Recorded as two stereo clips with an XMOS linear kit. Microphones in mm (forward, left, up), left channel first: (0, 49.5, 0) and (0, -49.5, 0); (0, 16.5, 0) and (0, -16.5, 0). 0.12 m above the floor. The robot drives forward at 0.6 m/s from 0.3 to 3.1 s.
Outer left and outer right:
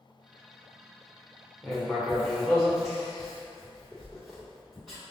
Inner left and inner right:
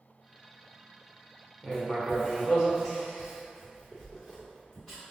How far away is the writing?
About 1.9 m.